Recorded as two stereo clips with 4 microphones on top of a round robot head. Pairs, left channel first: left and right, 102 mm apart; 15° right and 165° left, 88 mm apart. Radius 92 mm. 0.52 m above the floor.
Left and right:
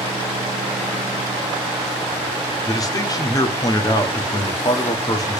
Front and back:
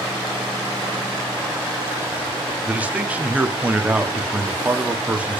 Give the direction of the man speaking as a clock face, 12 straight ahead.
9 o'clock.